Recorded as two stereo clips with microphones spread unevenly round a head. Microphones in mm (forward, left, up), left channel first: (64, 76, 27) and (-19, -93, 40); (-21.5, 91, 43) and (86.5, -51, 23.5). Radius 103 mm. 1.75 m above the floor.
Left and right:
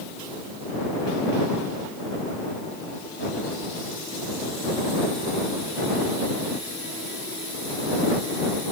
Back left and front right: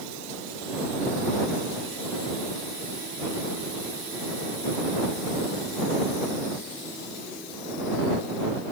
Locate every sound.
Only background noise.